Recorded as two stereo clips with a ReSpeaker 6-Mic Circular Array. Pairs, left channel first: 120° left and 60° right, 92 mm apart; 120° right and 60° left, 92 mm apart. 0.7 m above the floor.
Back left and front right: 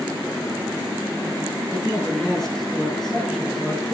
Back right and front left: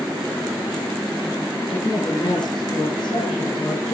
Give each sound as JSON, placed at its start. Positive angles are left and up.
{"t": 1.7, "sound": "a man speaking", "azimuth_deg": -155, "distance_m": 9.0}